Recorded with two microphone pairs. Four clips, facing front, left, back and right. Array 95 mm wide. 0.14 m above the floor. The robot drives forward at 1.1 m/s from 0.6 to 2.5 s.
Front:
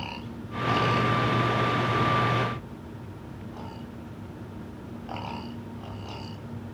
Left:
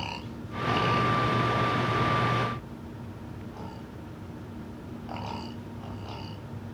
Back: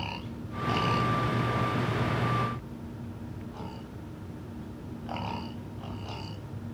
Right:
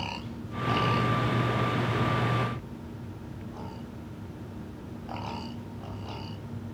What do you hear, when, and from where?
Only background noise.